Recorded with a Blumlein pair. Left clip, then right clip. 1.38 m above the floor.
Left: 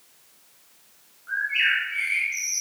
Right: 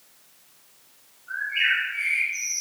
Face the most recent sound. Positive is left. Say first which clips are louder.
# left 1 dB
turn(degrees=40)